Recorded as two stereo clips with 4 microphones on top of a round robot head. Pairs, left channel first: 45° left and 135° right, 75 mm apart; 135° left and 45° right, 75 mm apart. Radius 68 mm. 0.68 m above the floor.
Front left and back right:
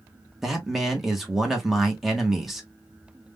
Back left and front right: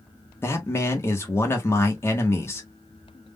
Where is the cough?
No cough in this recording.